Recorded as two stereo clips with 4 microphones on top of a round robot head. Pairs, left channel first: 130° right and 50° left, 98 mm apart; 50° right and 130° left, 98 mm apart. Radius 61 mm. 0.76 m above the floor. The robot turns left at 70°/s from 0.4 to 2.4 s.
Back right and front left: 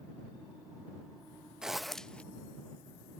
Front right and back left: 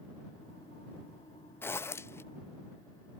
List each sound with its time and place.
1.6 s a zipper: 25° right; by 2.2 s 65° right